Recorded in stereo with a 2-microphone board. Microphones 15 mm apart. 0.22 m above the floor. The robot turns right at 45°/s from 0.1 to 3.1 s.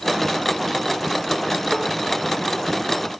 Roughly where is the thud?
Centre.